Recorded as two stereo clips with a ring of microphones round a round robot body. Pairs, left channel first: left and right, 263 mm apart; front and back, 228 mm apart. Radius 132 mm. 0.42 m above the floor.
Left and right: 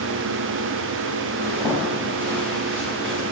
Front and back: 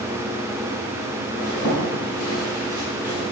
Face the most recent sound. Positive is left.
turn(degrees=5)